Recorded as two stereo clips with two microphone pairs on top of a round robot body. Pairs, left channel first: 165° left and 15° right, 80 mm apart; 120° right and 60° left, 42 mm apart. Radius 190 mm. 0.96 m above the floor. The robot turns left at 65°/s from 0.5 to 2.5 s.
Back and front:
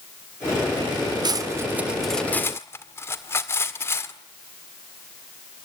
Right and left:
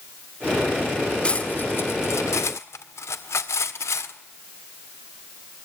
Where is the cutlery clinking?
55° right, 1.8 m; by 4.1 s 135° right, 1.8 m.